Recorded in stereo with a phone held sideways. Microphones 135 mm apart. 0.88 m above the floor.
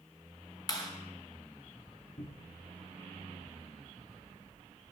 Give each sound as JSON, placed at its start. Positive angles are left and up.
{"t": 0.7, "sound": "a clap", "side_deg": 30, "distance_m": 3.5}
{"t": 2.2, "sound": "a cupboard door", "side_deg": 65, "distance_m": 0.8}